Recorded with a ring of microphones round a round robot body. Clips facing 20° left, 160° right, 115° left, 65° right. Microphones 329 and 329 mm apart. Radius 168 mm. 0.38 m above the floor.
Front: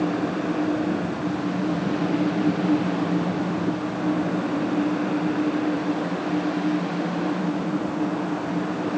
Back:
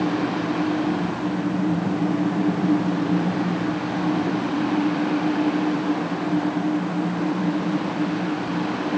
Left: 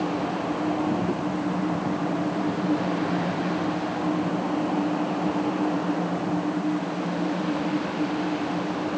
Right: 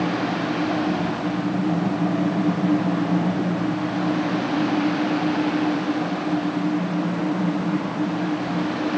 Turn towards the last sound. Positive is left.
No sound to turn to.